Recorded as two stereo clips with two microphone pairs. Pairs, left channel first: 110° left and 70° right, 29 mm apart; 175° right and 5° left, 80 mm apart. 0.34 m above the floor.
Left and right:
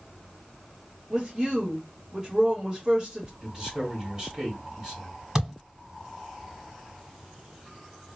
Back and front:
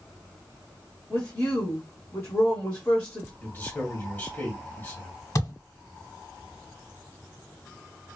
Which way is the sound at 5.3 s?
140° right.